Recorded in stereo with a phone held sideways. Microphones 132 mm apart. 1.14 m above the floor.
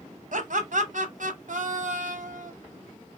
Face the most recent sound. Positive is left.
turn(degrees=-75)  # may be behind; listen again after turning